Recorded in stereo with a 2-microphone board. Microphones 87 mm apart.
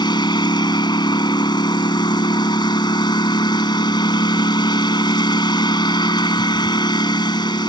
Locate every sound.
0.0 s a lawn mower: 55° left (ahead or behind)